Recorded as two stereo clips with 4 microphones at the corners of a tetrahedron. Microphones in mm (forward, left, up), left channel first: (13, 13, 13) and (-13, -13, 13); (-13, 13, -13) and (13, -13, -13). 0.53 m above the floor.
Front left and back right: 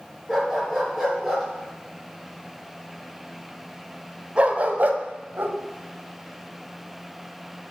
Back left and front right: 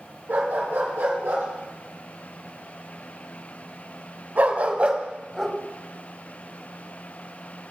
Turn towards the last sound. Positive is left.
turn(degrees=-135)